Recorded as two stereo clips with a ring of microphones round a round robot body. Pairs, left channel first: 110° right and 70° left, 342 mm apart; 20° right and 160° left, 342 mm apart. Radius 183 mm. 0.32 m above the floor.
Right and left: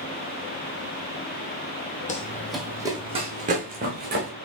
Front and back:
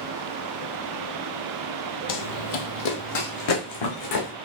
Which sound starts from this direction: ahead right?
Running footsteps, at 2.1 s.